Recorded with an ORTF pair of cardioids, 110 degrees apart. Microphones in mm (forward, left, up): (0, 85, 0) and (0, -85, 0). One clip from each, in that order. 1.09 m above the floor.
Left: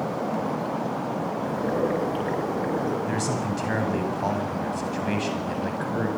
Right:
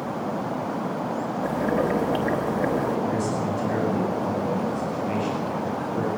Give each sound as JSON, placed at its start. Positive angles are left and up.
{"t": 1.4, "sound": "boiling", "azimuth_deg": -40, "distance_m": 7.0}
{"t": 3.1, "sound": "a man speaking", "azimuth_deg": 55, "distance_m": 9.5}